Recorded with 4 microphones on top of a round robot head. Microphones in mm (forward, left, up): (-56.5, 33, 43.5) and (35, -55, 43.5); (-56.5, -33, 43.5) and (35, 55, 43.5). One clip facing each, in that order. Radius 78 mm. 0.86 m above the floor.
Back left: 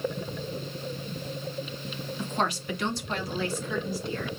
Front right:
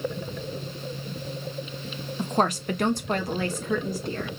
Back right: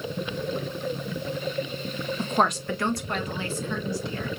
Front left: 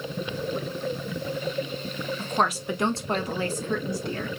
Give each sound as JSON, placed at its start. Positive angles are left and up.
{"t": 2.2, "sound": "a woman speaking", "azimuth_deg": -75, "distance_m": 0.7}